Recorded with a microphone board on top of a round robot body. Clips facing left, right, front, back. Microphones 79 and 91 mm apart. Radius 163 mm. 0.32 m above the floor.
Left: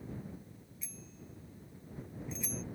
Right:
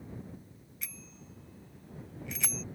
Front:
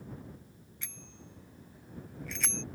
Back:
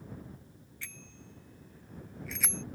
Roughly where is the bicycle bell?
Right.